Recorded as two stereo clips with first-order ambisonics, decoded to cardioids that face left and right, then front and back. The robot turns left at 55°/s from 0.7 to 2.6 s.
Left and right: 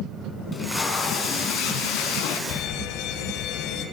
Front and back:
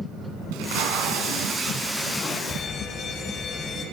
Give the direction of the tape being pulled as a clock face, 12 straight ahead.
7 o'clock.